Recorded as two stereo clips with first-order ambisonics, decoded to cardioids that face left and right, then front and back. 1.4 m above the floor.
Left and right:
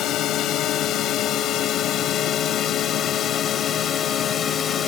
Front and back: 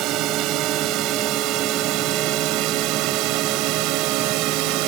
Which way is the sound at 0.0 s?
140° left.